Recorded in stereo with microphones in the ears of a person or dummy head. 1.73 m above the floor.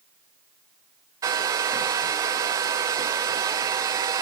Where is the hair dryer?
20° right (ahead or behind), 0.6 m.